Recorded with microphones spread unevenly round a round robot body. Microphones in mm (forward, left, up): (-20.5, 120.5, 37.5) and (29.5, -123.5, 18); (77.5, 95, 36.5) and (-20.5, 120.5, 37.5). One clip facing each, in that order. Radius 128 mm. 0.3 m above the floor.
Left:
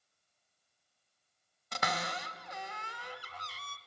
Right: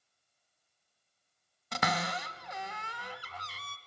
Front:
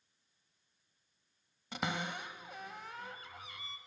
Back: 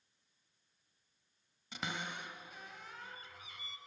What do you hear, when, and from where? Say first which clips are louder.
1.7 s a cupboard door: right 4 dB, front 4 dB; 70° right, 1.0 m